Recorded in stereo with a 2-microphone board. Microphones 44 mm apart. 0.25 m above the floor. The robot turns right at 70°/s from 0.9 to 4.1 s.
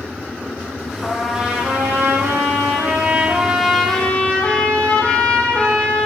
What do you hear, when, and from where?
1.0 s a trumpet: 170° left, 8.5 m; by 6.1 s 25° left, 8.5 m